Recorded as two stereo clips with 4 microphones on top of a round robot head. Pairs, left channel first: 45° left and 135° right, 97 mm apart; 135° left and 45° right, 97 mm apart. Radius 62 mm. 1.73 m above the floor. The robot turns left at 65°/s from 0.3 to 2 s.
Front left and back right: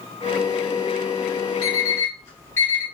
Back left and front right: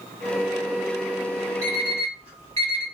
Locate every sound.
1.6 s an alarm clock: 10° left, 1.2 m; by 2.8 s 15° right, 1.2 m